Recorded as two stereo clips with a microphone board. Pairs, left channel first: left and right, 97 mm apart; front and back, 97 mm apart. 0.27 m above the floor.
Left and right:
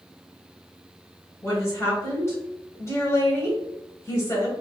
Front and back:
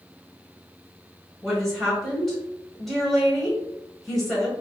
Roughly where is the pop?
I don't hear a pop.